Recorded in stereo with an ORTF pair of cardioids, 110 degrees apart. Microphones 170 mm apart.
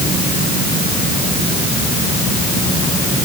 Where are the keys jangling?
I don't hear keys jangling.